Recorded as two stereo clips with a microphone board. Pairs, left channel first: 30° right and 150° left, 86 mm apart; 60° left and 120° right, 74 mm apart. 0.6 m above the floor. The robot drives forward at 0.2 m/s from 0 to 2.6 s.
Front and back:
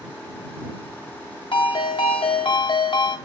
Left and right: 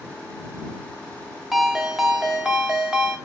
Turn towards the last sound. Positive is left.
turn(degrees=-45)